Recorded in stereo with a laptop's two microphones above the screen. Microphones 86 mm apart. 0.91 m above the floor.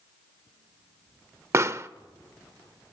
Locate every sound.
1.5 s a pop: 35° right (ahead or behind), 0.6 m